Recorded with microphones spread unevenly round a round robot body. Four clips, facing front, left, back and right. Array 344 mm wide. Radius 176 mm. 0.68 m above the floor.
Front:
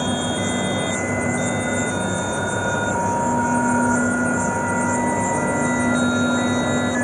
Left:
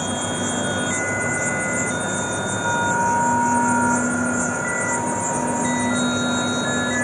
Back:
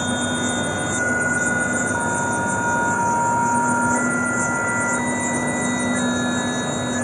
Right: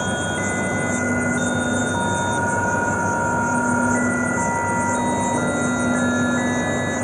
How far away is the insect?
About 1.7 m.